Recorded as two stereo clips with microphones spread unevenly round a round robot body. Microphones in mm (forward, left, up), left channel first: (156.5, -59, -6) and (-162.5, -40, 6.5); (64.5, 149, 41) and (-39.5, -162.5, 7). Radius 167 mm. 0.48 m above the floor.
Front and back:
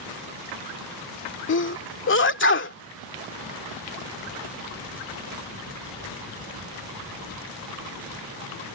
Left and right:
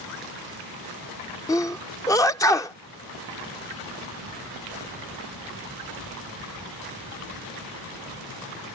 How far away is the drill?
I don't hear a drill.